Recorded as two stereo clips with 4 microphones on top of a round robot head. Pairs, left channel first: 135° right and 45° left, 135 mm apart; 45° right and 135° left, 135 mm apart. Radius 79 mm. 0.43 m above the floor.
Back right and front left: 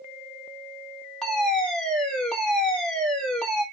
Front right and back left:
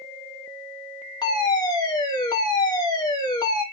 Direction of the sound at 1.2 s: 50° right.